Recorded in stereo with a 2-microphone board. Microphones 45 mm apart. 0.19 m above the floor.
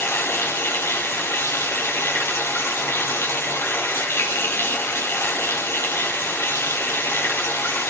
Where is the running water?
75° left (ahead or behind), 1.8 m.